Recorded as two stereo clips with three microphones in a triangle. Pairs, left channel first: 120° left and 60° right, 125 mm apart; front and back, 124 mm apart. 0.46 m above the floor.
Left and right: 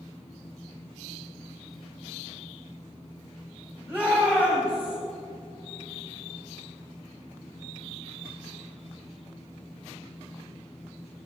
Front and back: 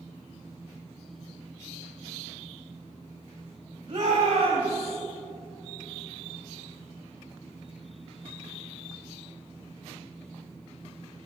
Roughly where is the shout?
Behind right.